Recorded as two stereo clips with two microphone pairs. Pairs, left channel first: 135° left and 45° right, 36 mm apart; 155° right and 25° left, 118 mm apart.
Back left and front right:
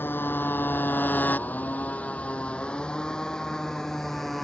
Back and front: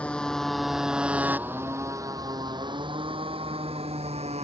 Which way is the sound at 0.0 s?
125° left.